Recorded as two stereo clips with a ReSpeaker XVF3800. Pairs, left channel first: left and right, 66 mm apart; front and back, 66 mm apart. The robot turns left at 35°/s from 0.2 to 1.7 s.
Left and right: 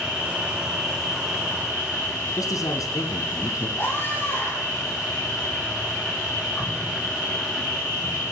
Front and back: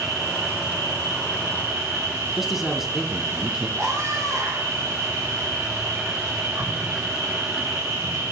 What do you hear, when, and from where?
0.0 s an insect: 150° right, 9.5 m; by 8.3 s 155° left, 9.5 m
2.4 s a man speaking: 95° left, 2 m
3.8 s a scream: 145° left, 6.5 m